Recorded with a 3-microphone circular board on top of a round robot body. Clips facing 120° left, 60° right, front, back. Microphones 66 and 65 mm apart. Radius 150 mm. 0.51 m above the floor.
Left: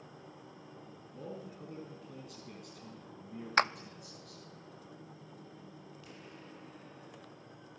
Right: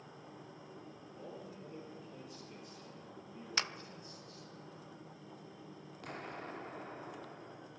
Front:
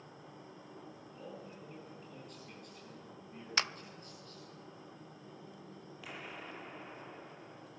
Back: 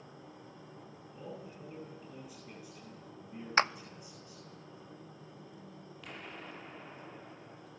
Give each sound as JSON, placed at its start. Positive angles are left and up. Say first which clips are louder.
{"t": 1.1, "sound": "a man speaking", "louder": "left 5 dB, back 4 dB", "azimuth_deg": 95, "distance_m": 5.5}
{"t": 3.6, "sound": "a clap", "louder": "left 11 dB, back 8 dB", "azimuth_deg": 140, "distance_m": 0.7}
{"t": 6.0, "sound": "an explosion", "louder": "right 11 dB, even", "azimuth_deg": -85, "distance_m": 1.1}